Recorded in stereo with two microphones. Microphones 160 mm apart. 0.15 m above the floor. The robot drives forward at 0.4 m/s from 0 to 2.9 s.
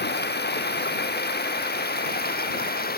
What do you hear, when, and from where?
0.0 s running water: 85° left; by 3.0 s 70° left (ahead or behind)